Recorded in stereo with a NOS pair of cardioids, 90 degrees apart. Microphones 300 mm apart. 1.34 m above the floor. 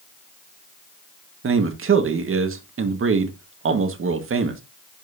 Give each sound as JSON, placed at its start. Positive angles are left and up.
{"t": 1.4, "sound": "a man speaking", "azimuth_deg": -45, "distance_m": 1.8}